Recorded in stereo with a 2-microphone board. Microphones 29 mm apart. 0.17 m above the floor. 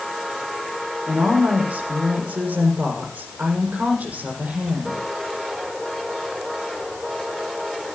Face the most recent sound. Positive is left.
turn(degrees=-50)  # may be behind; listen again after turning